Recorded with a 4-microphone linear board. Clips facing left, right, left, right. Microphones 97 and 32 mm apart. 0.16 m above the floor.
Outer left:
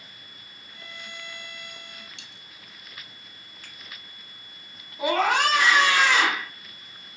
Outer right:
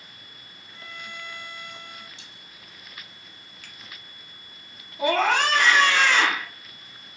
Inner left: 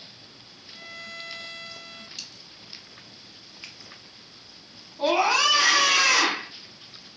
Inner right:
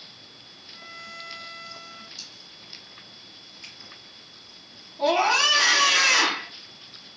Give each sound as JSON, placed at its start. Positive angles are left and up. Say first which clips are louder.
{"t": 0.7, "sound": "a violin", "louder": "outer right 2 dB, inner left 1 dB", "side_deg": 65, "distance_m": 0.9}
{"t": 2.2, "sound": "a dropped coin", "louder": "even, inner left 1 dB", "side_deg": 70, "distance_m": 1.4}
{"t": 3.6, "sound": "a finger snap", "louder": "even, inner left 1 dB", "side_deg": 35, "distance_m": 1.7}
{"t": 5.0, "sound": "a scream", "louder": "outer right 1 dB, inner right 1 dB", "side_deg": 10, "distance_m": 1.1}